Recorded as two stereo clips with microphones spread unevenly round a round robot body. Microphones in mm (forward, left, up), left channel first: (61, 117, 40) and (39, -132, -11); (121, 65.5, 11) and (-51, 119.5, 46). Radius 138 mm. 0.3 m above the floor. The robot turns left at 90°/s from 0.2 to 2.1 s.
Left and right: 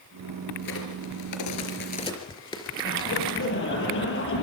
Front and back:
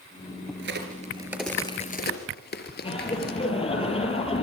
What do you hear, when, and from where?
0.6 s a crack: 150° left, 4.5 m; by 3.5 s 10° left, 4.5 m
2.8 s laughter: 40° left, 8.5 m